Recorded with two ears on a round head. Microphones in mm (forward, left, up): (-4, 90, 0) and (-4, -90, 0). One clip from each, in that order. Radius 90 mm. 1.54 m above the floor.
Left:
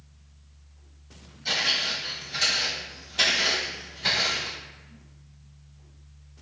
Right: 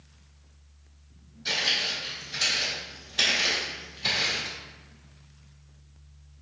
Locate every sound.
1.4 s footsteps: 20° right (ahead or behind), 2.0 m; by 4.5 s 5° right (ahead or behind), 1.6 m